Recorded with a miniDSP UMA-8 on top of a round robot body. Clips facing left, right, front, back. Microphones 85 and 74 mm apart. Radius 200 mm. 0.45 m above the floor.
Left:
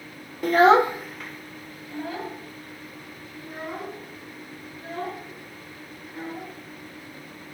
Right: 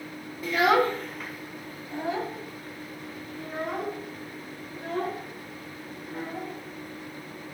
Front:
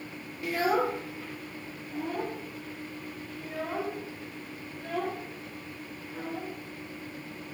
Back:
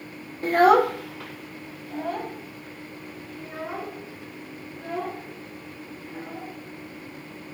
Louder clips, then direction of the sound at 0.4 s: Left 6 dB, back 10 dB; 130° left.